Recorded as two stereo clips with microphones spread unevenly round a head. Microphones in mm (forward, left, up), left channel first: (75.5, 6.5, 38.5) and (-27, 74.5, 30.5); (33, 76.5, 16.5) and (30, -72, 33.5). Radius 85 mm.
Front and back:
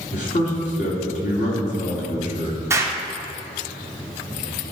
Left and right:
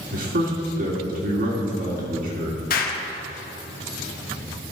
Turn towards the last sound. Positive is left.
turn(degrees=80)